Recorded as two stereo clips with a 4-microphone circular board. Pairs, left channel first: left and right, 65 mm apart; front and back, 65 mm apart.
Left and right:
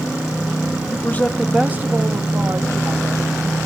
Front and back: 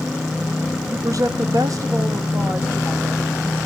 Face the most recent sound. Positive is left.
turn(degrees=-115)